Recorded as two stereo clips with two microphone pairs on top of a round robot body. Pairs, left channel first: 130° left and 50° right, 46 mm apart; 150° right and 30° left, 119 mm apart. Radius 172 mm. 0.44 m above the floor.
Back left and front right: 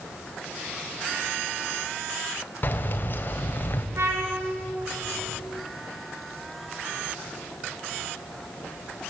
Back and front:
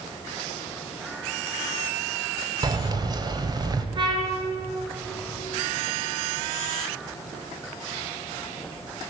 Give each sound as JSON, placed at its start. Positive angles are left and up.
{"t": 2.6, "sound": "keys jangling", "azimuth_deg": 85, "distance_m": 1.8}
{"t": 4.0, "sound": "a trumpet", "azimuth_deg": -25, "distance_m": 4.0}